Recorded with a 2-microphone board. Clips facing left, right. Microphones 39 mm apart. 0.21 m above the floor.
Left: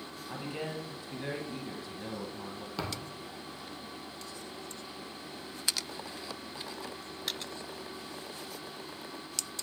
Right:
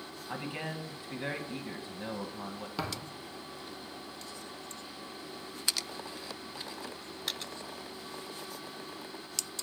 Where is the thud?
5° right (ahead or behind), 1.5 m.